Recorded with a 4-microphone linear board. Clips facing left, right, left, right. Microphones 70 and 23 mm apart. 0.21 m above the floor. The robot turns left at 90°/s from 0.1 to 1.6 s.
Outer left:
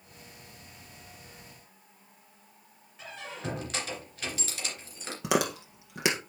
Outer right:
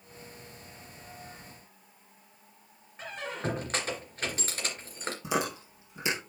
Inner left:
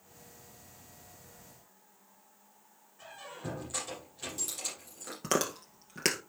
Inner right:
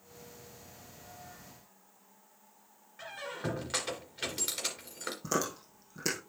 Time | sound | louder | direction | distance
3.0 | a squeak | outer right 4 dB, inner right 5 dB | 45° right (ahead or behind) | 2.5 m
5.2 | chewing | outer left 4 dB, inner left 3 dB | 80° left | 2.0 m